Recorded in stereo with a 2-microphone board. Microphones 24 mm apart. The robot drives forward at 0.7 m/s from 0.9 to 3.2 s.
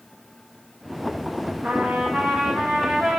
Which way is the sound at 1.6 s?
75° right (ahead or behind).